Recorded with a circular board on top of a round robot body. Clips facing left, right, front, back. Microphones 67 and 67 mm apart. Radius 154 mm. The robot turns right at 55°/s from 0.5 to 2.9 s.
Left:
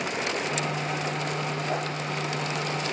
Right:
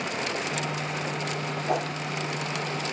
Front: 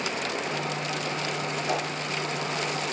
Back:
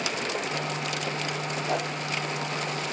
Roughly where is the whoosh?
Right.